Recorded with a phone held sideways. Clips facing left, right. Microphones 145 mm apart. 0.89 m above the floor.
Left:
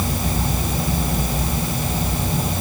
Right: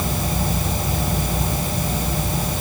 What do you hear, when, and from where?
Only background noise.